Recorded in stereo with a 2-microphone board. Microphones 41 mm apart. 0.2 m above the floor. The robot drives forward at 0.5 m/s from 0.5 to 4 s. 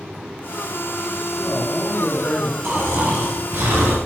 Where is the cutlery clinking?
I don't hear cutlery clinking.